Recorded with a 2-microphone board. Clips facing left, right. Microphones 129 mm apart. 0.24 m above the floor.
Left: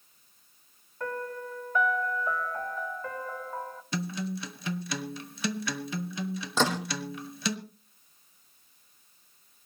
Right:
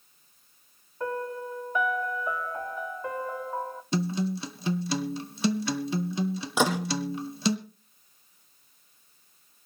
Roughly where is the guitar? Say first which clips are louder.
Right 5 dB; right.